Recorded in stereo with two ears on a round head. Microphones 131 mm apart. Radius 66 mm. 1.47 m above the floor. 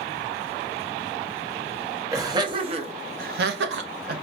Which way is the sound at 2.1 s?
20° right (ahead or behind).